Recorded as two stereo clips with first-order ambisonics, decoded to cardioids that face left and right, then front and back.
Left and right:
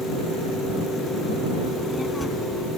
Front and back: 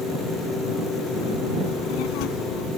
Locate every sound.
1.7 s a child speaking: 5° left